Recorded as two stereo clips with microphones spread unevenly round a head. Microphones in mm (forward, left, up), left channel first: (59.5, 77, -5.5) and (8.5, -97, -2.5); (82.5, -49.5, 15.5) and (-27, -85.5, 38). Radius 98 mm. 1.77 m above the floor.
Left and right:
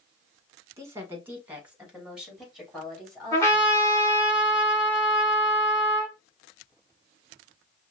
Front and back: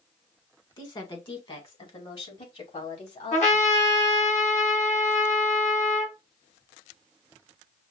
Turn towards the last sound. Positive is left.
turn(degrees=0)